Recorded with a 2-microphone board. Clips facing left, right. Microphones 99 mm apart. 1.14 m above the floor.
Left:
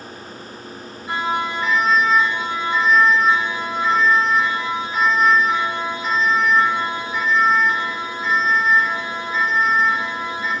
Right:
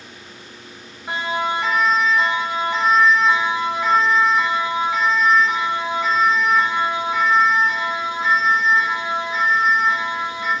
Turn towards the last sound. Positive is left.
turn(degrees=-85)